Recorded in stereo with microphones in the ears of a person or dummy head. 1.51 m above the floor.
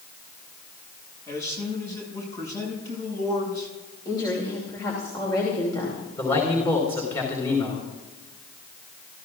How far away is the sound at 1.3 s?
About 7 m.